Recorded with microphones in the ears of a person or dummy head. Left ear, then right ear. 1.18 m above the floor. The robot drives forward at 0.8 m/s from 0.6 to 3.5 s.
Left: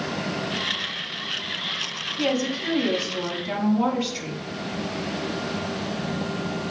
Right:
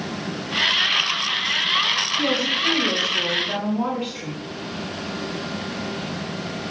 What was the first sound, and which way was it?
A woman speaking, 25° left (ahead or behind).